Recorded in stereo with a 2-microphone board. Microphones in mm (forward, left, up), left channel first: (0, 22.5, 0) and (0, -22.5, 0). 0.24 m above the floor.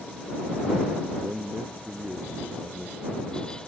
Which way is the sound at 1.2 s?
40° right (ahead or behind).